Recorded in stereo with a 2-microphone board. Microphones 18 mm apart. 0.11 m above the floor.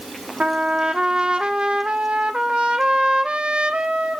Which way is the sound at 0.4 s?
80° right.